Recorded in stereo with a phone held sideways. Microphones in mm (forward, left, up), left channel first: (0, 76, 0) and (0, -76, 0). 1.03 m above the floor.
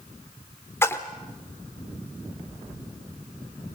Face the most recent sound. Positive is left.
turn(degrees=15)  # may be behind; listen again after turning